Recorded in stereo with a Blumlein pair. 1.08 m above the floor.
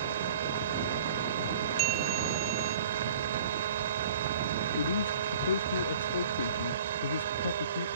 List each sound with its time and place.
0.0 s a machine running: 60° right
1.8 s a bell: 30° right
4.8 s a man speaking: 70° left